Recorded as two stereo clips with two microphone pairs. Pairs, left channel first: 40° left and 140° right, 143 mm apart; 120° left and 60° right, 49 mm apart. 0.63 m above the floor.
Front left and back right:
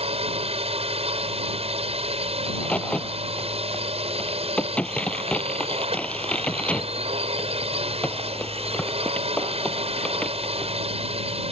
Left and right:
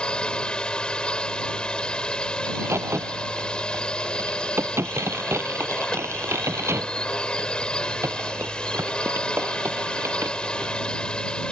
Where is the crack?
45° right.